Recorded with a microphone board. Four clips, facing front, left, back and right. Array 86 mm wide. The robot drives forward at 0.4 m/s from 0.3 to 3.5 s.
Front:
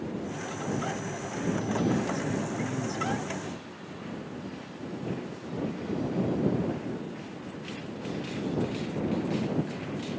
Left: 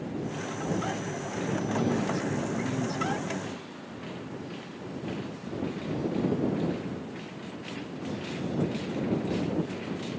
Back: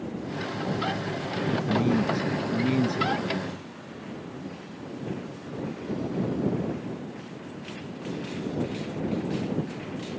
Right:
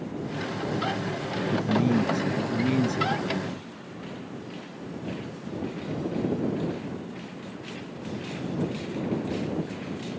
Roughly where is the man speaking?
Behind right.